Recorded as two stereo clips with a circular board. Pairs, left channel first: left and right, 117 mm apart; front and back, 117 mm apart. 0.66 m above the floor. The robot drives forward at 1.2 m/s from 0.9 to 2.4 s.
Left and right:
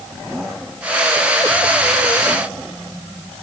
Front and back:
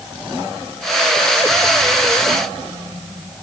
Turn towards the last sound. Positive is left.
No sound to turn to.